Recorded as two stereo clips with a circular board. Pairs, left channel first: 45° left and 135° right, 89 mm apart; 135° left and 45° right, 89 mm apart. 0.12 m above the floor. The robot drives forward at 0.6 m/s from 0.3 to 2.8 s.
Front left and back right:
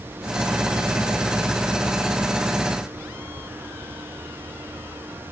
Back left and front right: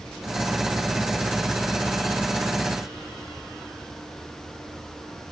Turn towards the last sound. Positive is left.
No sound to turn to.